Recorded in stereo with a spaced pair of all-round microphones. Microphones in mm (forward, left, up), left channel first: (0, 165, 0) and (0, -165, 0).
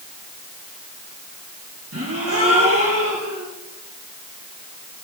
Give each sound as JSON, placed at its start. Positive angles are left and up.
{"t": 1.9, "sound": "a gasp", "side_deg": -45, "distance_m": 2.5}